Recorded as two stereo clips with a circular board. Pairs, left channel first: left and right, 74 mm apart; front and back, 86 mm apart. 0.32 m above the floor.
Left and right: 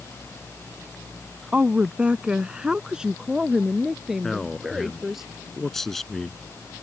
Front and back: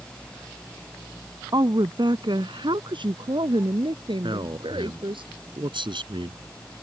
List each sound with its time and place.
1.5 s a woman speaking: 160° right; by 5.2 s 175° right
4.2 s a man speaking: 175° left